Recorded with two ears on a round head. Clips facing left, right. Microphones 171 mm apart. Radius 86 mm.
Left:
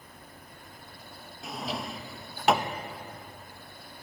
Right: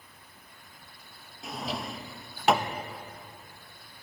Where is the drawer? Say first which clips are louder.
Even; centre (ahead or behind), 0.5 m.